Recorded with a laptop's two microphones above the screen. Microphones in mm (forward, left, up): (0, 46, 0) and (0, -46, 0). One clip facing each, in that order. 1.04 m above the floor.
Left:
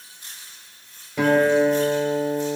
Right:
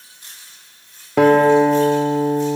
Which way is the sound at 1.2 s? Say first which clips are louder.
Right 6 dB; 85° right.